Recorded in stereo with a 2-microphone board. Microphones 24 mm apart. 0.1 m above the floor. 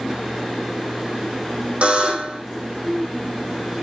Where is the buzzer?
55° right (ahead or behind), 5 m.